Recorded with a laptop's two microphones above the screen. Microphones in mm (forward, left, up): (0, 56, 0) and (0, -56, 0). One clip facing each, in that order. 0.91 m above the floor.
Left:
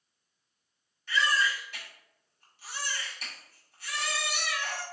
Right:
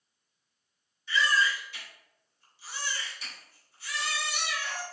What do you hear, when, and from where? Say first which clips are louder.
1.1 s a baby crying: right 1 dB; 65° left (ahead or behind), 2.0 m